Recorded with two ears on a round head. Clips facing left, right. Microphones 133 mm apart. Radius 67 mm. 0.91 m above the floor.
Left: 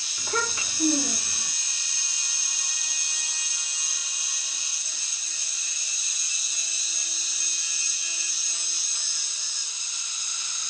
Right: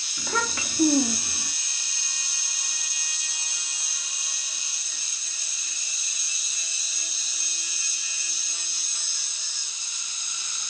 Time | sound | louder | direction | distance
0.2 | a child speaking | right 1 dB | 70° right (ahead or behind) | 0.8 m